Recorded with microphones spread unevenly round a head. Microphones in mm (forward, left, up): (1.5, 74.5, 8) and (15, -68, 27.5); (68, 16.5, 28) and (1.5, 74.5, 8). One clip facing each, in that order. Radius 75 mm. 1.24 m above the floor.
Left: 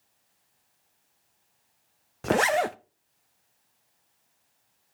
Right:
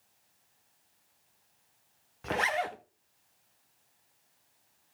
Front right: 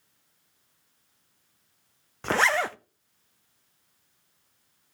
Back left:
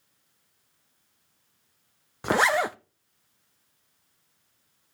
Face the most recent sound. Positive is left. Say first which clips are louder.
# left 8 dB, back left 2 dB
turn(degrees=60)